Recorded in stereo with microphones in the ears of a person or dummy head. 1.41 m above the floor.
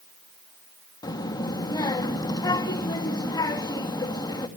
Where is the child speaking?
15° left (ahead or behind), 1.8 m.